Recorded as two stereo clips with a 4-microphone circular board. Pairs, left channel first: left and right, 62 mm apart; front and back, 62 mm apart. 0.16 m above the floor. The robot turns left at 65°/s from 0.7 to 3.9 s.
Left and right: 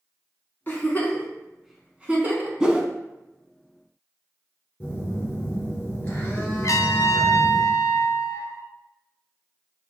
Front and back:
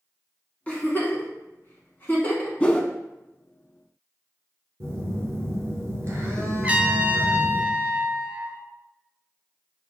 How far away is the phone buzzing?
About 1.6 m.